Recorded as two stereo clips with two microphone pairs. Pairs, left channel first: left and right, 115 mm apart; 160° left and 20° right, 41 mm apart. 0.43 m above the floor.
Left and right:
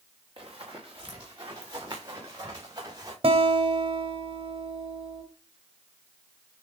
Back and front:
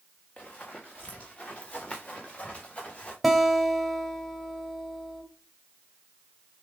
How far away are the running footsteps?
About 3 m.